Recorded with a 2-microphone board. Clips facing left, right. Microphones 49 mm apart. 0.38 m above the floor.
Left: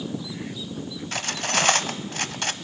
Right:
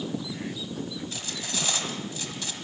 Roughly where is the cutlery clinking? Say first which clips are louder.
Left 8 dB; left.